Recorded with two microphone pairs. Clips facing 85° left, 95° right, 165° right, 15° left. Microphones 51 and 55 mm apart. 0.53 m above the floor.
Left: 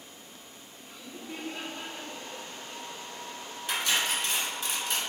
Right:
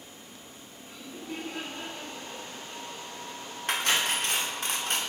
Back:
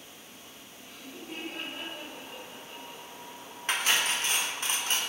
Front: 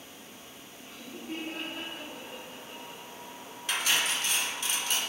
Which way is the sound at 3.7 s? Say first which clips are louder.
Right 2 dB, back 1 dB; 120° right.